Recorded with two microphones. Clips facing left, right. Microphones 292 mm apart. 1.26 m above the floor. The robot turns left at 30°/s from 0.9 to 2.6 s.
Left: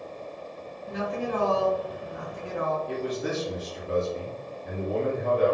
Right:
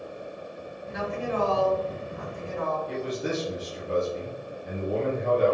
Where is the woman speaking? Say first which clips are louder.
Left 1 dB; 140° left, 1.0 m; by 2.8 s 90° left, 1.0 m.